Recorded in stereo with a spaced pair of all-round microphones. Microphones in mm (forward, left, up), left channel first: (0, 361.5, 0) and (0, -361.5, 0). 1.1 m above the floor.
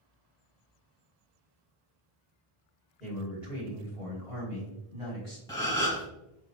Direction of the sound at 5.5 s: 5° left (ahead or behind).